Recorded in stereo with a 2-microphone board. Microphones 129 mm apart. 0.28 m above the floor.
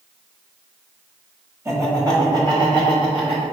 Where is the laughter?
20° right (ahead or behind), 1.5 m; by 3.4 s 40° right (ahead or behind), 3 m.